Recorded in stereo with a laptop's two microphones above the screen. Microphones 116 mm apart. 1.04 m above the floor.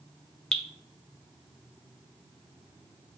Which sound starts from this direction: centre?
Dripping, at 0.5 s.